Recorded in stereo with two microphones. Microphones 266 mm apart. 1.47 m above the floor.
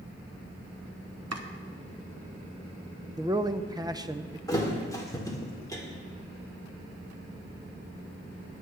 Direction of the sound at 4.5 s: 15° left (ahead or behind).